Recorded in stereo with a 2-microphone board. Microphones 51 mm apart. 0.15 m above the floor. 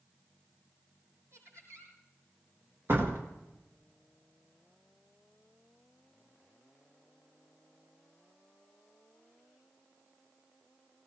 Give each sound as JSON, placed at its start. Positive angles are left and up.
{"t": 1.3, "sound": "laughter", "side_deg": -75, "distance_m": 6.0}
{"t": 2.9, "sound": "a door slam", "side_deg": -55, "distance_m": 1.8}